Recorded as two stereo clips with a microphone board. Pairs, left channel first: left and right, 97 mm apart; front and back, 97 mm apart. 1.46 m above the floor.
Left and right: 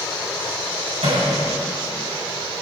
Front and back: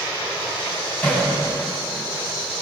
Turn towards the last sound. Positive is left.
turn(degrees=-80)